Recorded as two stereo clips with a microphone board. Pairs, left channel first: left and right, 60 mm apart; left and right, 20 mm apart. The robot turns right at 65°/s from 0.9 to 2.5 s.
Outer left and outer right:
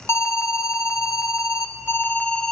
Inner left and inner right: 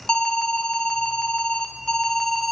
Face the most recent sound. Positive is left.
turn(degrees=170)